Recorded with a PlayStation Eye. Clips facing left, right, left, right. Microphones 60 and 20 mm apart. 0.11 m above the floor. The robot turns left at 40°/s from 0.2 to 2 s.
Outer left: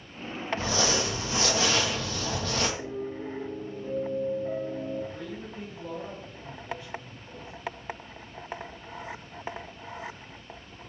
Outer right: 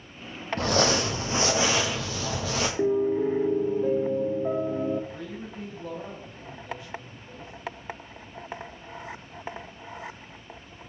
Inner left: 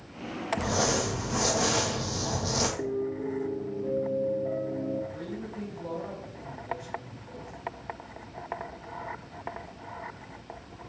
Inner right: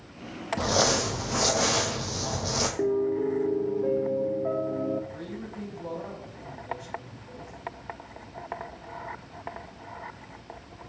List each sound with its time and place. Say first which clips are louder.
0.6 s crumpling: outer right 5 dB, inner right 4 dB; 115° right, 0.8 m; by 2.7 s 175° right, 0.8 m
2.8 s a piano: outer right 12 dB, inner right 6 dB; 75° right (ahead or behind), 0.6 m
5.1 s a man speaking: outer right 1 dB, inner left 1 dB; 5° right (ahead or behind), 2.5 m